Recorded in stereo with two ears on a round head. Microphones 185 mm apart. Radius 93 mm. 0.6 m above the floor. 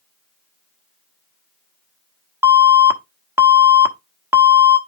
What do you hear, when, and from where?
2.4 s an alarm: 10° right (ahead or behind), 1.0 m